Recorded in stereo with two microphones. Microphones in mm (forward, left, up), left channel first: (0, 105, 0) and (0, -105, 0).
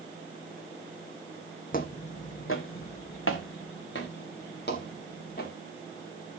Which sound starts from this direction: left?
Footsteps, at 1.7 s.